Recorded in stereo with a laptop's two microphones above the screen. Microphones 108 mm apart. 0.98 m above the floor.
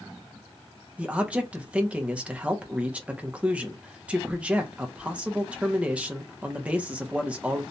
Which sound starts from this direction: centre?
A man speaking, at 1.0 s.